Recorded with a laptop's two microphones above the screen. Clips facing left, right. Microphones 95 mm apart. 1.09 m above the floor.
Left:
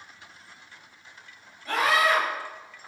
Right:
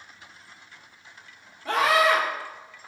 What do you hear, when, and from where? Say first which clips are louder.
1.6 s a scream: right 2 dB; 70° right (ahead or behind), 1.2 m